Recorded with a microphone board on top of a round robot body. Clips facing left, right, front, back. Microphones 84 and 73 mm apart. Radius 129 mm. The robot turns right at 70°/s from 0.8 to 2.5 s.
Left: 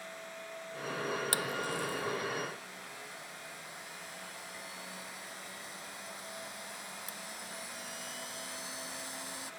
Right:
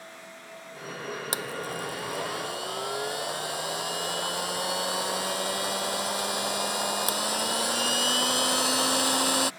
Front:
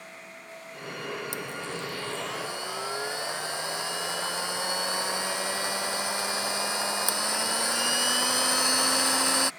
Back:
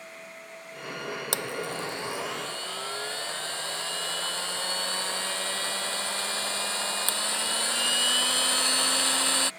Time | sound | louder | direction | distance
1.3 | a blender | right 2 dB, back 3 dB | 160° right | ?